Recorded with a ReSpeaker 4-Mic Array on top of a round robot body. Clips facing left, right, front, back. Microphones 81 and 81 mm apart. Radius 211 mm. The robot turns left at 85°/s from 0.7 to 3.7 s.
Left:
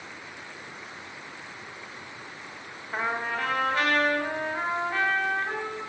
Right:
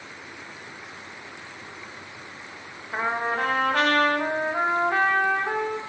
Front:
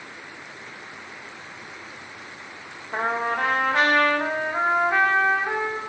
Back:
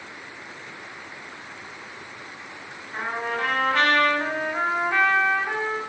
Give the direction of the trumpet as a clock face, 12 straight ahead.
12 o'clock.